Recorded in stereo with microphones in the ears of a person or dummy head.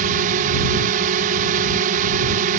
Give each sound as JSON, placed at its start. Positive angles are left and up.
{"t": 0.0, "sound": "a drone", "side_deg": -45}